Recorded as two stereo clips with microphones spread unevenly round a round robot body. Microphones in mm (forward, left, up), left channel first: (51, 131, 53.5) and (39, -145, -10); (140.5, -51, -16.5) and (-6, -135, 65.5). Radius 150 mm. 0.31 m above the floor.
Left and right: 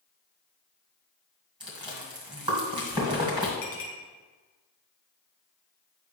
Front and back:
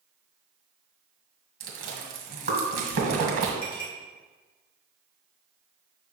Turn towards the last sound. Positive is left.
turn(degrees=40)